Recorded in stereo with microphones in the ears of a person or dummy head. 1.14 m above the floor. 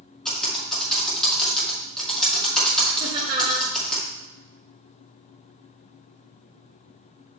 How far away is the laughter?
About 1.2 m.